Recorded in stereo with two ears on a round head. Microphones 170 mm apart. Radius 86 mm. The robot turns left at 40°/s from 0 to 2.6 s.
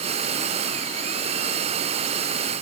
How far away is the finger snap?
I don't hear a finger snap.